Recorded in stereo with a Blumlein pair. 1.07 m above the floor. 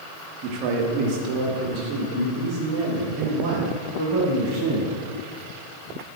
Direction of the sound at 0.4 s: 35° right.